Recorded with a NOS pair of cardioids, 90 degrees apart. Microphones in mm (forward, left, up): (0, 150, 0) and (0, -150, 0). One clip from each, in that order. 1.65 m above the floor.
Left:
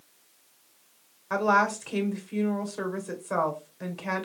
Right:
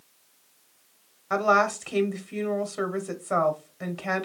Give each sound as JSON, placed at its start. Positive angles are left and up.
{"t": 1.3, "sound": "a woman speaking", "azimuth_deg": -15, "distance_m": 0.9}